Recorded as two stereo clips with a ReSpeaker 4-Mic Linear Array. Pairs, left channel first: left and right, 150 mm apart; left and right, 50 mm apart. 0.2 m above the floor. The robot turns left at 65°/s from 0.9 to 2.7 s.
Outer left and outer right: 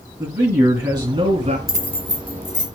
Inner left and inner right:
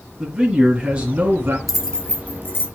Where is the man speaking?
35° right, 2.5 m; by 1.6 s 75° right, 2.5 m.